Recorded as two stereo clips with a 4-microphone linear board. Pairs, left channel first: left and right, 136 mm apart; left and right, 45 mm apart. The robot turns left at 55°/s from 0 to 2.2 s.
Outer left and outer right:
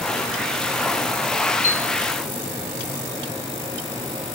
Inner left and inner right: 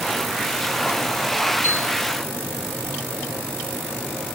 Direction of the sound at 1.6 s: 65° left (ahead or behind).